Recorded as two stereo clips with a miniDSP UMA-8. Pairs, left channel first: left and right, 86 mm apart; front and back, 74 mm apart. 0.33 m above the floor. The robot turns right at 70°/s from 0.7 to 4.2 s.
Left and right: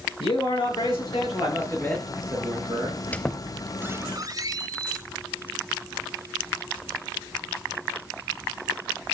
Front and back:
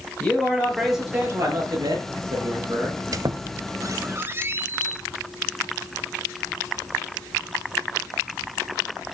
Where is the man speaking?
80° left, 5.5 m; by 3.0 s 120° right, 5.5 m.